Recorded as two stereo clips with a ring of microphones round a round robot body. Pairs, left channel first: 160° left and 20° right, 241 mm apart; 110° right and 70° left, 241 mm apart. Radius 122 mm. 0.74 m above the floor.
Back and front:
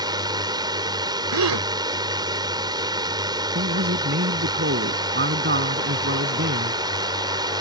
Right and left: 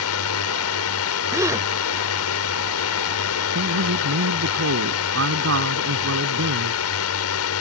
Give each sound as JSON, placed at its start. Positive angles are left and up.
{"t": 0.0, "sound": "a drone", "azimuth_deg": -95}
{"t": 1.3, "sound": "a gasp", "azimuth_deg": -10}
{"t": 3.5, "sound": "a man speaking", "azimuth_deg": 30}